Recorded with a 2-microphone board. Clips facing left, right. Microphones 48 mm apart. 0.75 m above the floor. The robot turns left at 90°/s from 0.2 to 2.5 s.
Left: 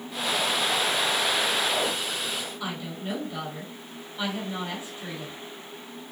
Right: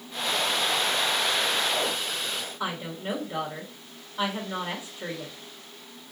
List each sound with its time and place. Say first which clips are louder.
2.6 s a woman speaking: right 2 dB; 50° right (ahead or behind), 2.5 m